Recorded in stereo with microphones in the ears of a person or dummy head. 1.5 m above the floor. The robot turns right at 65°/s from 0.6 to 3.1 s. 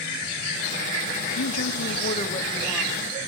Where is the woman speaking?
90° left, 2.5 m; by 2.9 s 170° right, 2.5 m.